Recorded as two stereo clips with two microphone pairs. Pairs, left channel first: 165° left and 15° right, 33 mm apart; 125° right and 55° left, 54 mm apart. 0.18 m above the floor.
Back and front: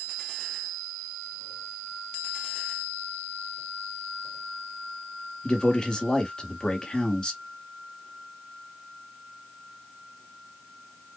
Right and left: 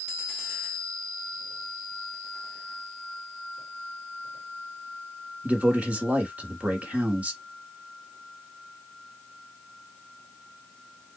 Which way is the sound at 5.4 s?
110° left.